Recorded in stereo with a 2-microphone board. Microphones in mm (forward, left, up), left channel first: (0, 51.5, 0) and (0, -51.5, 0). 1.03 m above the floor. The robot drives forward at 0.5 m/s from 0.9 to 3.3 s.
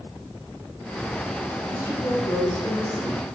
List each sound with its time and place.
1.7 s a woman speaking: 30° left (ahead or behind), 4 m; by 3.2 s 40° left (ahead or behind), 3.5 m